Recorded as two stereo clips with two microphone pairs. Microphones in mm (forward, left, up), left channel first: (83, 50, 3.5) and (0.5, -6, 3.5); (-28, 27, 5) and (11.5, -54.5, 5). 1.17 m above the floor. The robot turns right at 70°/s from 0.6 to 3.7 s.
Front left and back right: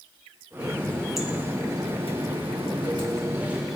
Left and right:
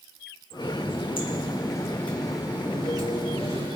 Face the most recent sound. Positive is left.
turn(degrees=-55)